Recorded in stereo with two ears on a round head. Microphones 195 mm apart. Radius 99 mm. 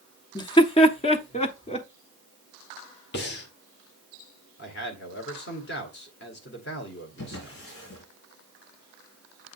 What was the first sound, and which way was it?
Laughter, 20° left (ahead or behind).